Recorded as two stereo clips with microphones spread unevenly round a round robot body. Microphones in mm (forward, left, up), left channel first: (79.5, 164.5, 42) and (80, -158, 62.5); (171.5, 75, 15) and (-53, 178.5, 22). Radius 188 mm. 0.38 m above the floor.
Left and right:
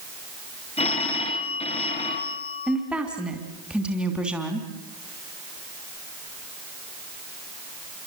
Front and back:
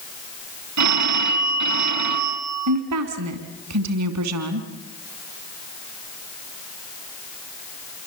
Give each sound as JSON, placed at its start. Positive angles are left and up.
{"t": 0.8, "sound": "a phone ringing", "azimuth_deg": 165, "distance_m": 3.0}
{"t": 2.7, "sound": "a woman speaking", "azimuth_deg": 180, "distance_m": 3.0}